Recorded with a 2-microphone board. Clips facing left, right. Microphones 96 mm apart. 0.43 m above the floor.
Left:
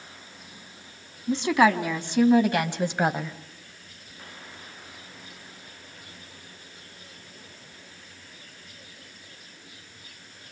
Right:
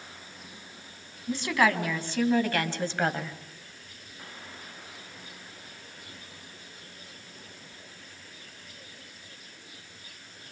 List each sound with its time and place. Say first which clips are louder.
1.3 s a woman speaking: left 5 dB; 20° left (ahead or behind), 3.5 m; by 3.4 s 10° left (ahead or behind), 2 m